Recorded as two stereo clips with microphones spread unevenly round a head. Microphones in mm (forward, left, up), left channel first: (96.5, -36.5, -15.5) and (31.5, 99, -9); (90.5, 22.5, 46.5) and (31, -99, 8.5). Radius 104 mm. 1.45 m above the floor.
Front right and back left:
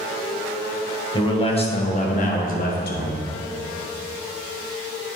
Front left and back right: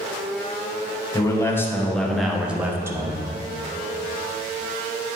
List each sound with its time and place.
1.1 s a man speaking: 5° right, 1.6 m; by 3.2 s 55° right, 1.5 m